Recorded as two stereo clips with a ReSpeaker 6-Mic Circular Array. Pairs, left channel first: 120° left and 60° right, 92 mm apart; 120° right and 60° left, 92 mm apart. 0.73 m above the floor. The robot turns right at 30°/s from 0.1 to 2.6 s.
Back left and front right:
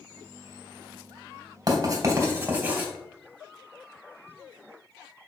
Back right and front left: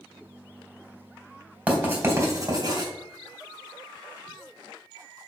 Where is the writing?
15° right, 2.5 m; by 2.9 s 15° left, 2.5 m.